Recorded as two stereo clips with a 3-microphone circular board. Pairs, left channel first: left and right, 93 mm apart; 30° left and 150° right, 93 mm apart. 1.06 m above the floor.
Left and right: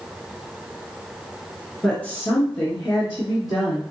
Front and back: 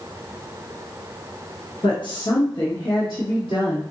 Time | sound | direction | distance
1.8 | a woman speaking | 15° left | 0.9 m